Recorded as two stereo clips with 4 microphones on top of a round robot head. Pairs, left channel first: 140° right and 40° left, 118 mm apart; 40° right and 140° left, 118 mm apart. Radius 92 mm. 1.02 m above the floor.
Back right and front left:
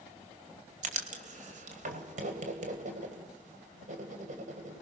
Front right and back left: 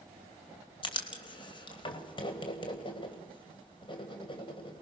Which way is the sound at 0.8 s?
15° left.